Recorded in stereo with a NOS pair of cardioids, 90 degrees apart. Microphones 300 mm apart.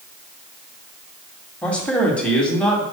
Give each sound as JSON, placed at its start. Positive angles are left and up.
{"t": 1.6, "sound": "a man speaking", "azimuth_deg": 5, "distance_m": 2.0}